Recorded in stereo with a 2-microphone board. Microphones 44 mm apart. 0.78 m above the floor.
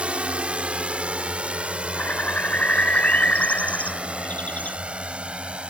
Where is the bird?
35° left (ahead or behind).